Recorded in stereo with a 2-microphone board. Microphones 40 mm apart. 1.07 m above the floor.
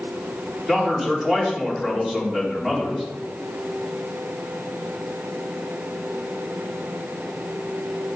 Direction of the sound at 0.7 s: 20° right (ahead or behind).